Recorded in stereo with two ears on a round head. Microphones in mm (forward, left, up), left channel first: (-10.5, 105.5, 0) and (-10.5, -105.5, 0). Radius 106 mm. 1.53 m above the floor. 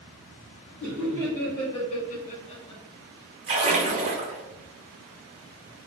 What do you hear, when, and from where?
0.8 s laughter: 5° left (ahead or behind), 1.8 m; by 2.8 s 20° left (ahead or behind), 1.1 m
3.5 s a splash: 30° right (ahead or behind), 0.8 m